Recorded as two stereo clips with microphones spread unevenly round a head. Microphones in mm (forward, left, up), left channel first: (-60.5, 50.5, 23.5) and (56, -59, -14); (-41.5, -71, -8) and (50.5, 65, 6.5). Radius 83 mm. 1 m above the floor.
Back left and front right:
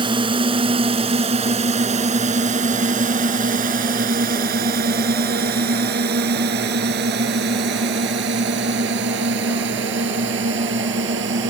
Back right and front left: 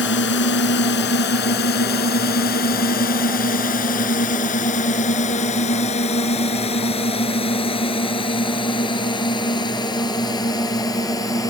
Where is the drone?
105° right; by 11.5 s 55° right.